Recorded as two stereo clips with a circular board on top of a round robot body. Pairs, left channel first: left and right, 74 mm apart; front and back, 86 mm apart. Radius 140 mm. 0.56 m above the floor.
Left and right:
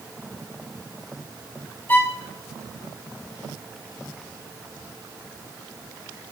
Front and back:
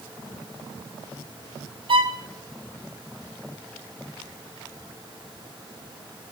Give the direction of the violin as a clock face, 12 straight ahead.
7 o'clock.